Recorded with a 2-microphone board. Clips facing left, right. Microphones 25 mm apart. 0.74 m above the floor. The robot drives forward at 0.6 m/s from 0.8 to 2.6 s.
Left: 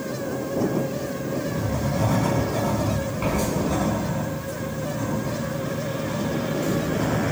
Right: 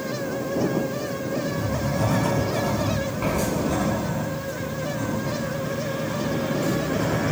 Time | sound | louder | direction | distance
1.5 | writing | even | 10° left (ahead or behind) | 7.5 m